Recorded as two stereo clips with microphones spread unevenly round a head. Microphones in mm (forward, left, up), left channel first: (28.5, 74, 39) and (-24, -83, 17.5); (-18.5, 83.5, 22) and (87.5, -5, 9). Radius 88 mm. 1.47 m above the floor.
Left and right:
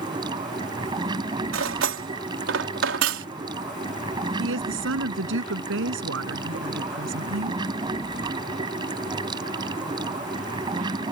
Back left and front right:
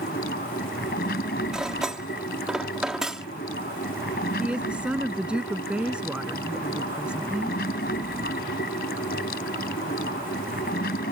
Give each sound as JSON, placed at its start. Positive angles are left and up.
{"t": 0.0, "sound": "running water", "azimuth_deg": 180}
{"t": 1.5, "sound": "cutlery clinking", "azimuth_deg": -130}
{"t": 4.4, "sound": "a woman speaking", "azimuth_deg": -125}